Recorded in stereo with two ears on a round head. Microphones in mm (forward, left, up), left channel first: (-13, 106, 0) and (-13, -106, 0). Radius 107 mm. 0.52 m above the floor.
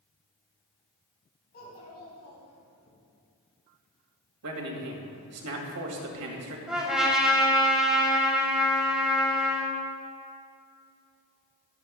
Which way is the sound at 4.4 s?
70° right (ahead or behind).